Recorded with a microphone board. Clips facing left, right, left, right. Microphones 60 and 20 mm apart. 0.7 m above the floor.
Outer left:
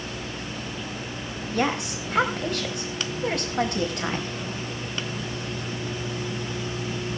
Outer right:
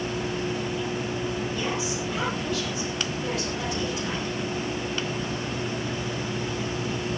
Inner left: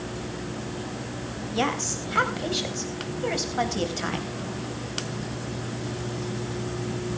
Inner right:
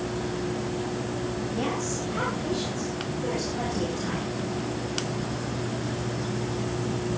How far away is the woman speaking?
About 4 m.